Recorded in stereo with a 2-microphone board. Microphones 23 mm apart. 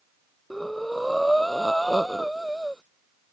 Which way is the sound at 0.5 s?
10° left (ahead or behind).